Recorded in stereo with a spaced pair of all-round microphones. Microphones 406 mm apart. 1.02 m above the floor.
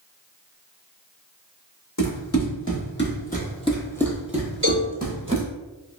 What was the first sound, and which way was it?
Running footsteps, 40° left (ahead or behind).